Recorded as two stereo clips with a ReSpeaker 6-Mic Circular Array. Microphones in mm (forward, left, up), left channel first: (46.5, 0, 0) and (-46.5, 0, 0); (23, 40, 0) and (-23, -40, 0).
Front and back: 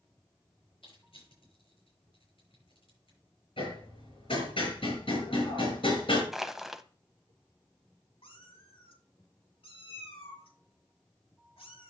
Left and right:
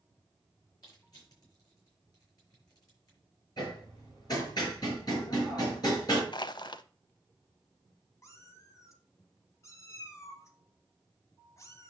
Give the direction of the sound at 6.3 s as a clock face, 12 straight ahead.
9 o'clock.